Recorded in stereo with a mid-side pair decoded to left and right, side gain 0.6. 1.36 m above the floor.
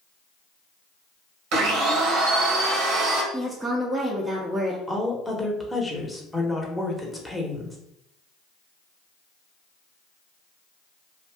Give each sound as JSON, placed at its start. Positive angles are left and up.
{"t": 1.5, "sound": "a blender", "azimuth_deg": -70, "distance_m": 1.1}
{"t": 3.3, "sound": "a woman speaking", "azimuth_deg": -15, "distance_m": 0.8}
{"t": 4.9, "sound": "a woman speaking", "azimuth_deg": 5, "distance_m": 1.0}